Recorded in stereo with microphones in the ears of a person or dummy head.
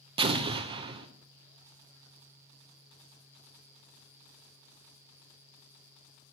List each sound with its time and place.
0.2 s an explosion: 25° right (ahead or behind), 0.6 m